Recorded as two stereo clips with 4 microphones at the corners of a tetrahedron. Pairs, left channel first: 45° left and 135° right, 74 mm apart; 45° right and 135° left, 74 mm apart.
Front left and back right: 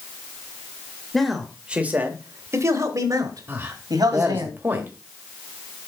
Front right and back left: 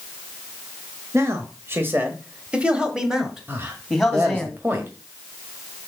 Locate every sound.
1.1 s a man speaking: 125° left, 1.2 m; by 4.5 s 130° right, 2.5 m
3.5 s a man speaking: straight behind, 1.4 m